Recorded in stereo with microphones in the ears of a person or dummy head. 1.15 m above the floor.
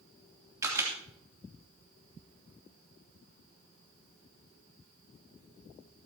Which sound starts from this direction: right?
A camera shutter, at 0.6 s.